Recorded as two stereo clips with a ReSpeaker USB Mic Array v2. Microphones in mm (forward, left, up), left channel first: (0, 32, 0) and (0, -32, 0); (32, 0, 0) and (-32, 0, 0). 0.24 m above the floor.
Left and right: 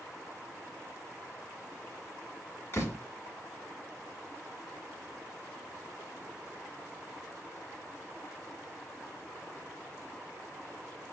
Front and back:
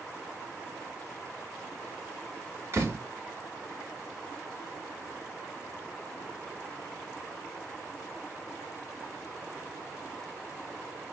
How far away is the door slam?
About 1.4 m.